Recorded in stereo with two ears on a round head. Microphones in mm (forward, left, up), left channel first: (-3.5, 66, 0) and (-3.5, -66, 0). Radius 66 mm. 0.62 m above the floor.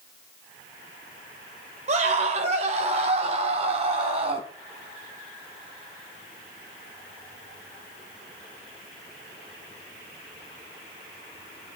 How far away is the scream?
About 3 m.